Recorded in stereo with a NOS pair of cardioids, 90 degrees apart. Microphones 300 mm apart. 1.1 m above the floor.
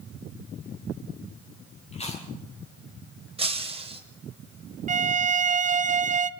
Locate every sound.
1.9 s chewing: 25° left, 6.5 m
3.4 s breaking glass: 20° right, 3.5 m
4.9 s a violin: 25° right, 0.9 m